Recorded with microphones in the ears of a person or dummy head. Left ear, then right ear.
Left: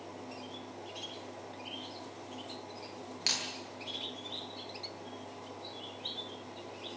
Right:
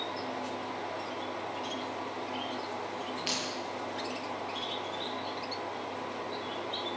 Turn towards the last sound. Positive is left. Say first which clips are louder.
# left 2 dB
turn(degrees=70)  # may be behind; listen again after turning